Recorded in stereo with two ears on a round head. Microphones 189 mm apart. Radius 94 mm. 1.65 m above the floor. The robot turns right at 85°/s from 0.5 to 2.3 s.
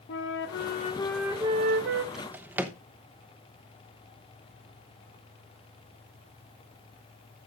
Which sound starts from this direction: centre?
A drawer, at 2.1 s.